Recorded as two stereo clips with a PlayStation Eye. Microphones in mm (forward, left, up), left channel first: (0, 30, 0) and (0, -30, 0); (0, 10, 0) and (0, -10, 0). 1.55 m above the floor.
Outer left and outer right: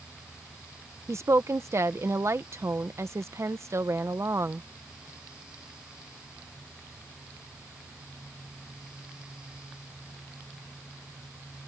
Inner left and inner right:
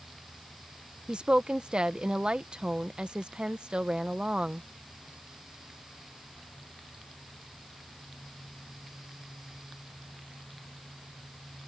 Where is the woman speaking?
55° right (ahead or behind).